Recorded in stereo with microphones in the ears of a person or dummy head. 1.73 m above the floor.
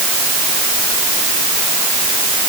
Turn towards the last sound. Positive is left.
No sound to turn to.